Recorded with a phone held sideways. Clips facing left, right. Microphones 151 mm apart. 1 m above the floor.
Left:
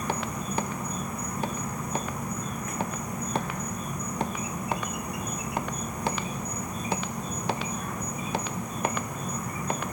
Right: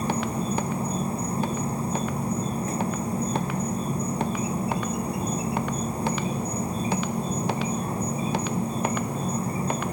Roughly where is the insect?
Right.